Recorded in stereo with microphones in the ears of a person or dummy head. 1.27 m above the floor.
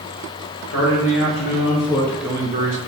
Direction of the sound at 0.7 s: 65° left (ahead or behind).